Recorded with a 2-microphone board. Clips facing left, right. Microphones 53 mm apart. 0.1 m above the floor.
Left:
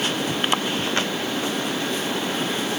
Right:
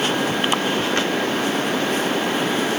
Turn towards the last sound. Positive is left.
No sound to turn to.